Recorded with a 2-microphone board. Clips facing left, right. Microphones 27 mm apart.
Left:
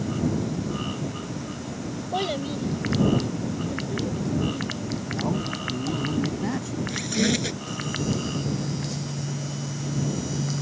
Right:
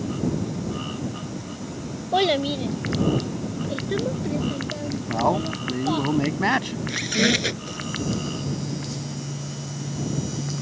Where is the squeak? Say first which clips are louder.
Right 4 dB; 25° right (ahead or behind).